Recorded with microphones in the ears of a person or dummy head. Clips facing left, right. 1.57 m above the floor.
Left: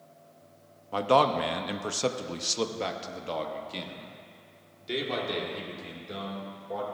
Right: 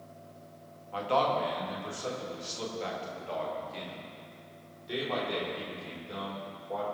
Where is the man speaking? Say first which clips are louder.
Left 5 dB; 55° left (ahead or behind), 1.1 m; by 6.8 s 20° left (ahead or behind), 3 m.